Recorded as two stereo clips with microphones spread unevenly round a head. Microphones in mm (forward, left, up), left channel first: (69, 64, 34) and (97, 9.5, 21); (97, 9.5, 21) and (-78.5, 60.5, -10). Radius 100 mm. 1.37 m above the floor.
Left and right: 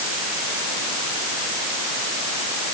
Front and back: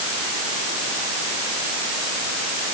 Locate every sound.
Only background noise.